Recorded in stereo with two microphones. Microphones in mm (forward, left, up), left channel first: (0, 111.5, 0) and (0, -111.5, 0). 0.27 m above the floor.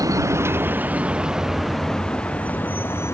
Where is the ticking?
I don't hear ticking.